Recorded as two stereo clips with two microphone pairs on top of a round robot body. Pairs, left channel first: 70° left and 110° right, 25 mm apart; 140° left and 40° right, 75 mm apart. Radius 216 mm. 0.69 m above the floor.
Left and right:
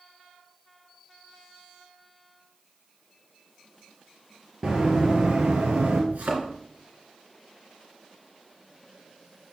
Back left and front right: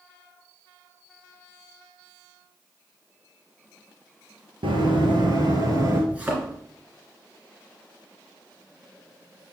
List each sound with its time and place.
4.6 s running footsteps: 50° right, 1.1 m; by 6.0 s 90° right, 1.2 m
6.1 s a thud: 110° right, 3 m